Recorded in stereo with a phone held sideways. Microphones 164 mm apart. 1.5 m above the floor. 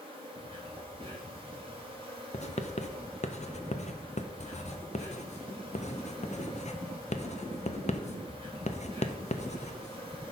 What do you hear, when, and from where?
0.0 s an insect: 35° right (ahead or behind), 3 m
2.3 s writing: 45° left (ahead or behind), 0.6 m